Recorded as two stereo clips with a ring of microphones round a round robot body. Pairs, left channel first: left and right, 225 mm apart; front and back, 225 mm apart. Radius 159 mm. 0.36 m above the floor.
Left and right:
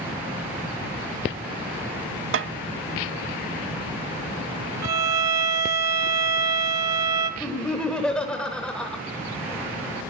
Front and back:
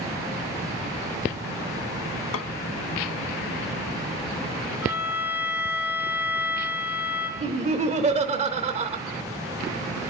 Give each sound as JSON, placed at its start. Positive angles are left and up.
{"t": 2.3, "sound": "a snare drum", "azimuth_deg": -50, "distance_m": 0.5}
{"t": 4.8, "sound": "a violin", "azimuth_deg": -95, "distance_m": 0.8}
{"t": 7.4, "sound": "laughter", "azimuth_deg": 170, "distance_m": 1.3}